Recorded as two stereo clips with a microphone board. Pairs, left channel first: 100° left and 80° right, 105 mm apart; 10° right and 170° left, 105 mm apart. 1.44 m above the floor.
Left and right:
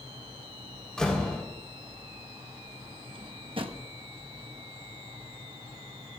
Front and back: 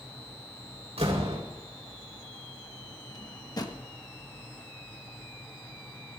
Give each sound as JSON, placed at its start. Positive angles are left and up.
{"t": 1.0, "sound": "a door slam", "azimuth_deg": -175, "distance_m": 4.0}
{"t": 3.1, "sound": "a drawer", "azimuth_deg": -55, "distance_m": 1.1}